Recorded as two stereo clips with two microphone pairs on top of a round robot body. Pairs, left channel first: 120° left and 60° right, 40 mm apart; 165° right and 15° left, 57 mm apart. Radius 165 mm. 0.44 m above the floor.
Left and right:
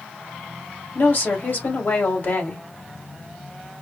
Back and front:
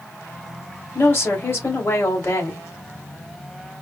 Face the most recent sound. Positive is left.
turn(degrees=160)